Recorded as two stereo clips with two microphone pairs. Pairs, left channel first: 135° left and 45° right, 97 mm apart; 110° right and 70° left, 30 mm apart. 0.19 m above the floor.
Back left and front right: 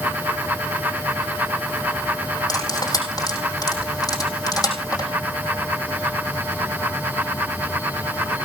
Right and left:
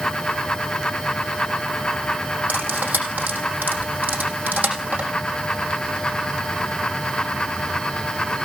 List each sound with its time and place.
2.5 s cutlery clinking: 85° left, 4.5 m